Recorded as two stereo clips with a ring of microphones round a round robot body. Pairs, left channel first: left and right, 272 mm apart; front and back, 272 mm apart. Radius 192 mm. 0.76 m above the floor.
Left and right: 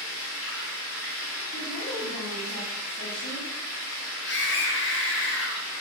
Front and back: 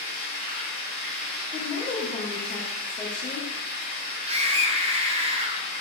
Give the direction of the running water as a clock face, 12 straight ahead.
7 o'clock.